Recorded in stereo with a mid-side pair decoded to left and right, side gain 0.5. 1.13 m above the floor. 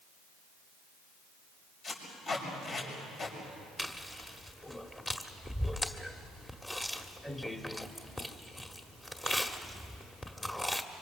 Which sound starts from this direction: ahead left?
Tape being pulled, at 1.8 s.